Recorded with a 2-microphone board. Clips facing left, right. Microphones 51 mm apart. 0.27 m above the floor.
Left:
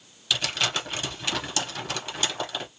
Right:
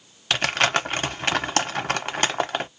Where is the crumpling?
50° right (ahead or behind), 0.7 m.